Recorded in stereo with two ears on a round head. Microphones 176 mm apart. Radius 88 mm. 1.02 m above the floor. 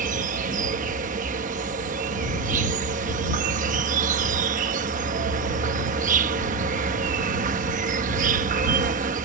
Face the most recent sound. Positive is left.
turn(degrees=-40)  # may be behind; listen again after turning